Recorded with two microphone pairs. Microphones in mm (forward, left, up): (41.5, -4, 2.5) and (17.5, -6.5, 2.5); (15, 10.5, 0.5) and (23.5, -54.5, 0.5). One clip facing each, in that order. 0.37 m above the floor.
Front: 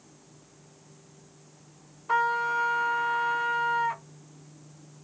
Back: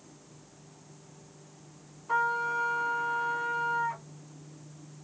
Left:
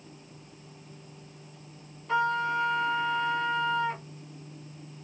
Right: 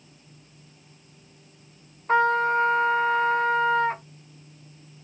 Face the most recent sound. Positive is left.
turn(degrees=-45)